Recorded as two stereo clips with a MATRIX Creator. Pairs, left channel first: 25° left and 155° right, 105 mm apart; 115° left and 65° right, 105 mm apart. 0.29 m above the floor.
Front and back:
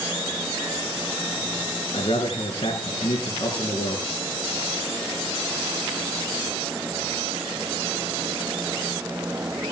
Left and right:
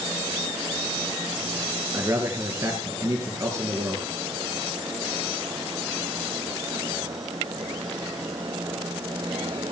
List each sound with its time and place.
1.9 s a man speaking: 5° right, 3.5 m